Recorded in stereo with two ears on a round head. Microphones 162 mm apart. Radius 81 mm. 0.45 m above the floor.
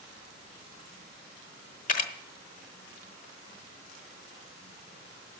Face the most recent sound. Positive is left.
turn(degrees=45)  # may be behind; listen again after turning